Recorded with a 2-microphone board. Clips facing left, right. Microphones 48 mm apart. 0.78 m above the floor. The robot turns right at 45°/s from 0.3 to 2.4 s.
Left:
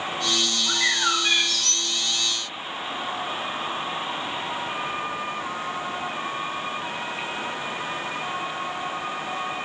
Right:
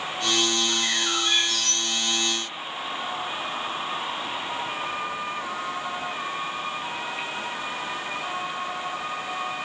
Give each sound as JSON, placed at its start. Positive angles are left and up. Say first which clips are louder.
{"t": 0.7, "sound": "a bird", "louder": "left 3 dB", "azimuth_deg": 80, "distance_m": 1.2}